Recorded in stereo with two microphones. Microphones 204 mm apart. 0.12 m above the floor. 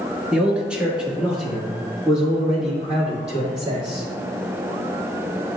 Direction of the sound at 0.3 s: 5° right (ahead or behind).